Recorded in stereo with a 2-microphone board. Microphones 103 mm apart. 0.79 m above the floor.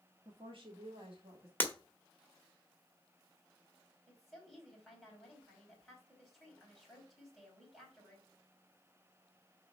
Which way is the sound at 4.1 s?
Centre (ahead or behind).